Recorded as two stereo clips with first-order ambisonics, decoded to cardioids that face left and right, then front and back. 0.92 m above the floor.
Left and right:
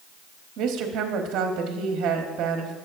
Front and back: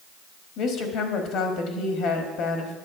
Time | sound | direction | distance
0.6 | a woman speaking | 40° right | 1.3 m